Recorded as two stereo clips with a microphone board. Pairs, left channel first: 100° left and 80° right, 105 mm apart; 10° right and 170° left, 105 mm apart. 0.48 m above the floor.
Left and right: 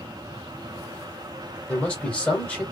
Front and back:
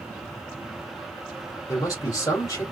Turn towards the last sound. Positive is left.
turn(degrees=25)